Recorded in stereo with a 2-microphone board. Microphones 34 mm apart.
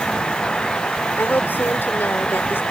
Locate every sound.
1.2 s a woman speaking: 85° left